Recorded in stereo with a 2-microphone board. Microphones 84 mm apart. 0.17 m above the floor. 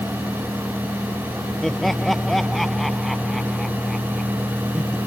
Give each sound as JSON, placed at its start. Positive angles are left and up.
{"t": 1.6, "sound": "laughter", "side_deg": 0}